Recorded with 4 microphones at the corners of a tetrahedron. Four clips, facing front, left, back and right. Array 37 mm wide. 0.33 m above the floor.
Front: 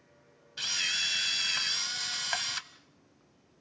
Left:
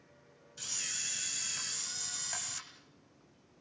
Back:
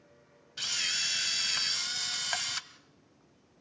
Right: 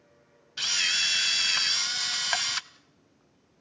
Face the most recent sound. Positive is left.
turn(degrees=-85)